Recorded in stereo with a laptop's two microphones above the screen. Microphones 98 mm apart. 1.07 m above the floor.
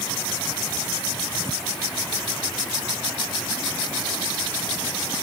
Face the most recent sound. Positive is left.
No sound to turn to.